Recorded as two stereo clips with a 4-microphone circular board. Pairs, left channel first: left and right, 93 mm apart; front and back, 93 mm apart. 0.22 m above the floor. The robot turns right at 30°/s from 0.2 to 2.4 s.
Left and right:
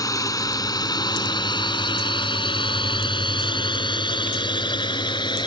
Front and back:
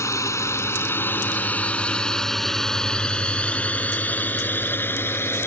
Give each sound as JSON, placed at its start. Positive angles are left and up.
{"t": 0.0, "sound": "a drone", "azimuth_deg": 50}